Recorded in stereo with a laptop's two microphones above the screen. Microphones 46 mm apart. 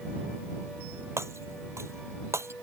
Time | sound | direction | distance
1.2 | breaking glass | 85° right | ?